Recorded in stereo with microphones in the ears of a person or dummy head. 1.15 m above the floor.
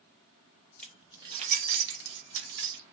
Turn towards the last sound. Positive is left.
turn(degrees=-75)  # may be behind; listen again after turning